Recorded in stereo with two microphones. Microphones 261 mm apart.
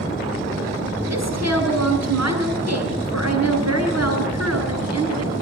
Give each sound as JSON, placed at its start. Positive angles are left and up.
{"t": 1.1, "sound": "a woman speaking", "side_deg": -80, "distance_m": 7.0}